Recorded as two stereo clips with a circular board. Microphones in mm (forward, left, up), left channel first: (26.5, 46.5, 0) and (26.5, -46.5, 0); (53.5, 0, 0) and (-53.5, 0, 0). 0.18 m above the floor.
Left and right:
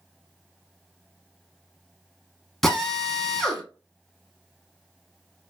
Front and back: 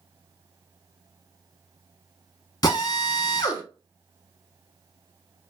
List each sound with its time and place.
2.6 s a drill: 5° left, 0.7 m